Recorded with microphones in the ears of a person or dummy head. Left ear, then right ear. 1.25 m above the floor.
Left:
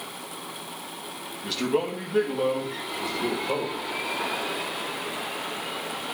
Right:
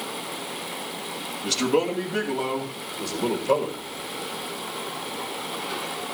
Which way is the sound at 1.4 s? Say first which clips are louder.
Right 3 dB; 10° right (ahead or behind).